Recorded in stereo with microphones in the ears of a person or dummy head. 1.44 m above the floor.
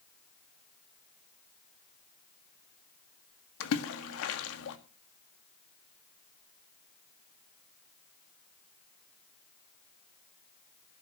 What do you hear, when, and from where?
3.6 s a splash: 75° left (ahead or behind), 1.7 m